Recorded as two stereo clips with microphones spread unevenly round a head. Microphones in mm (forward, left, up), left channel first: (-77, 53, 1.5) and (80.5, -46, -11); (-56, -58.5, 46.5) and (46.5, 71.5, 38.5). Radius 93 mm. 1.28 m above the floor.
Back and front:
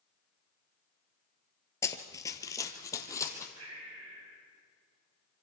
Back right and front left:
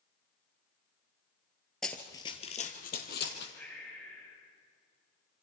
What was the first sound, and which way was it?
Running footsteps, 155° left.